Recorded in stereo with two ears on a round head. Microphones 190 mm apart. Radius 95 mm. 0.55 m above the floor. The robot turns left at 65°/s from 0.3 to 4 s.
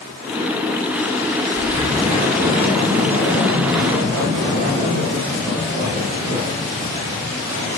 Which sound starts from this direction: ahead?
Breathing, at 1.6 s.